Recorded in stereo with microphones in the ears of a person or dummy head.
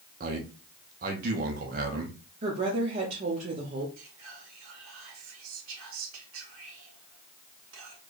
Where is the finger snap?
I don't hear a finger snap.